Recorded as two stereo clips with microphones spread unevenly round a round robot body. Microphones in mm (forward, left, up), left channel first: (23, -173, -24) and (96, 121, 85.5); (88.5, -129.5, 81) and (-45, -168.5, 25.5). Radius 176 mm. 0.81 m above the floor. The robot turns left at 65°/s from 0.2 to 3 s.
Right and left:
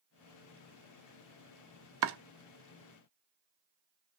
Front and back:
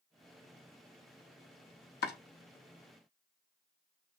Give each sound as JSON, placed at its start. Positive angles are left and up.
{"t": 2.0, "sound": "chopping", "azimuth_deg": 25, "distance_m": 0.6}